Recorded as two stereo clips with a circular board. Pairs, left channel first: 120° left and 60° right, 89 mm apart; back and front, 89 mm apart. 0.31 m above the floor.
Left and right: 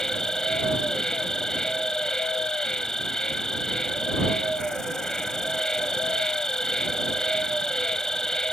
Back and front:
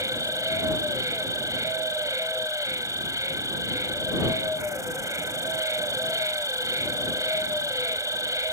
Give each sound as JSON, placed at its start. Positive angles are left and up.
{"t": 0.0, "sound": "an insect", "azimuth_deg": 40}